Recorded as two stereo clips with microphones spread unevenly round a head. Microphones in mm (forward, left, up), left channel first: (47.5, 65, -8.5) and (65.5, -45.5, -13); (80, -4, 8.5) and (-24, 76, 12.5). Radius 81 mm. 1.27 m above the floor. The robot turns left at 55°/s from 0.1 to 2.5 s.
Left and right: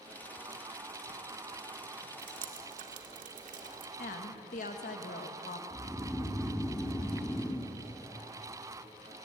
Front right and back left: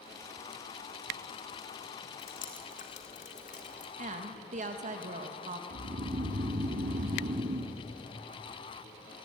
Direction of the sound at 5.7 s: 175° left.